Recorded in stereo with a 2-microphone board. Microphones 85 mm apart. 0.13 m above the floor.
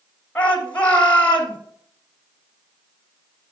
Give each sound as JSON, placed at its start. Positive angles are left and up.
{"t": 0.3, "sound": "a shout", "side_deg": 10, "distance_m": 2.0}